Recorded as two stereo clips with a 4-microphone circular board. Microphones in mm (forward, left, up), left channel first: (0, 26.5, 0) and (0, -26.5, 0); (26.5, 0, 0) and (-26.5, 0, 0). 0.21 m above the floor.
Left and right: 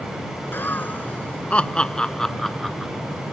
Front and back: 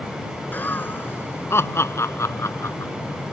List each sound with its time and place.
0.5 s laughter: 50° left; by 2.9 s straight ahead